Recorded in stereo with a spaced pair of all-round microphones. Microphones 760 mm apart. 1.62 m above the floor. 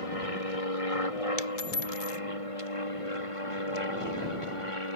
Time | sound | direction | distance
0.0 | an aircraft | 45° left (ahead or behind) | ?
1.4 | a dropped coin | 55° left (ahead or behind) | ?